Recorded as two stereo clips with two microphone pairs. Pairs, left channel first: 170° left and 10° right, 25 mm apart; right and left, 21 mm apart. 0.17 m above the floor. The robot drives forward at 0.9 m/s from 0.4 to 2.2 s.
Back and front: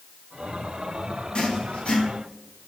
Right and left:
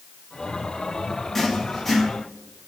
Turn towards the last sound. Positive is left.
turn(degrees=-170)